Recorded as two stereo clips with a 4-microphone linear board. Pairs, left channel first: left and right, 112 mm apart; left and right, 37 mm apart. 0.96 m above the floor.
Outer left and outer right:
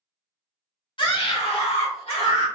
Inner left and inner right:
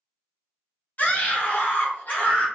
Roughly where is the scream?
Left.